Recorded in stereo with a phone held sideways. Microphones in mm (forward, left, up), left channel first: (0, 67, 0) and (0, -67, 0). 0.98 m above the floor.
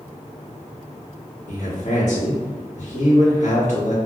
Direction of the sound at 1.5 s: 65° left (ahead or behind).